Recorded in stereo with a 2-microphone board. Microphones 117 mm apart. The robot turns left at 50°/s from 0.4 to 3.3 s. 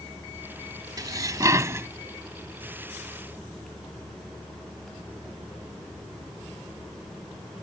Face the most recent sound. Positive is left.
turn(degrees=150)